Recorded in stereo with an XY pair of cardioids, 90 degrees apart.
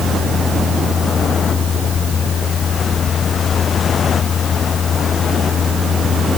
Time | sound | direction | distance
0.0 | a fan | 50° left | ?